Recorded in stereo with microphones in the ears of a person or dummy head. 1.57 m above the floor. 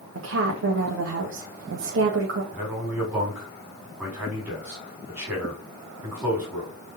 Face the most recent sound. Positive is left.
turn(degrees=-10)  # may be behind; listen again after turning